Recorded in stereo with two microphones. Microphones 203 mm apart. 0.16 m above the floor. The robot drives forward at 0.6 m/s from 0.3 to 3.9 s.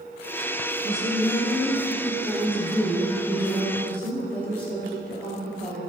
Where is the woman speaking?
15° left (ahead or behind), 1.3 m; by 5.8 s 5° left (ahead or behind), 3 m.